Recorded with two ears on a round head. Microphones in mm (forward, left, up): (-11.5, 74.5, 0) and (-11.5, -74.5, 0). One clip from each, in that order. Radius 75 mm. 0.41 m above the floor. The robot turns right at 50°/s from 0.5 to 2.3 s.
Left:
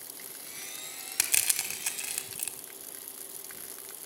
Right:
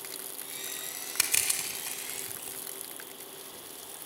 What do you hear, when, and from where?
1.2 s crushing: 15° left (ahead or behind), 0.9 m; by 2.6 s 70° left (ahead or behind), 0.9 m